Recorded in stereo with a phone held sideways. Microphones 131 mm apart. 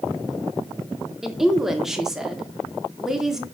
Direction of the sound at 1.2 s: 5° right (ahead or behind).